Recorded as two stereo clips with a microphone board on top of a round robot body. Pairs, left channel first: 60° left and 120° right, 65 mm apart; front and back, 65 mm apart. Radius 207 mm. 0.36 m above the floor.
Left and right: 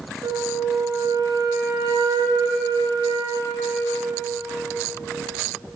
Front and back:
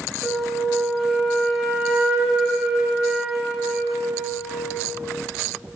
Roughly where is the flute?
Right.